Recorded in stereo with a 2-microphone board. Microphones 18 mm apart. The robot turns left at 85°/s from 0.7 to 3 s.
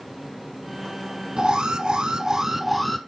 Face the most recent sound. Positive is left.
turn(degrees=170)